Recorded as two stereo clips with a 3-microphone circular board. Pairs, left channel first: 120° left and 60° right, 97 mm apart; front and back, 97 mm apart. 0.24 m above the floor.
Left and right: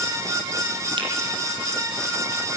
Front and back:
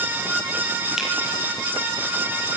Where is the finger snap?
95° right, 7.5 m.